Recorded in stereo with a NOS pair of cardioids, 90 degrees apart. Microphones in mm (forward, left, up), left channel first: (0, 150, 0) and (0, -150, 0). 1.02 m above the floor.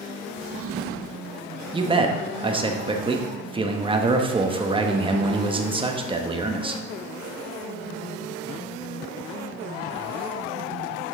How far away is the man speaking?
About 1.1 m.